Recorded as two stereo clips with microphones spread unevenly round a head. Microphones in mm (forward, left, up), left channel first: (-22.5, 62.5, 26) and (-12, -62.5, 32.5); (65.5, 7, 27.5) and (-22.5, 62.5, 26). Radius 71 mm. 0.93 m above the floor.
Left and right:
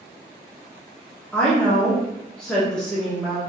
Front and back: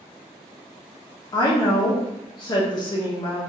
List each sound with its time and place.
1.3 s a woman speaking: 10° left, 0.7 m